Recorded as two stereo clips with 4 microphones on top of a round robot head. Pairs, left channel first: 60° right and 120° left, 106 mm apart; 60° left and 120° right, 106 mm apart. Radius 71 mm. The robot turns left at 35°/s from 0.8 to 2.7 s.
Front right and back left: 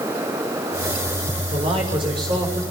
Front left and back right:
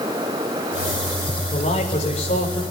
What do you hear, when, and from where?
1.5 s a man speaking: 95° left, 8 m; by 2.6 s 55° left, 8 m